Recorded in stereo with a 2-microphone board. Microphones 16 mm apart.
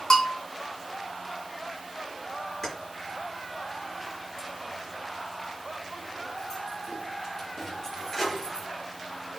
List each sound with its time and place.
0.1 s a bell: 35° left (ahead or behind), 3 m
2.6 s keys jangling: 25° left (ahead or behind), 5.5 m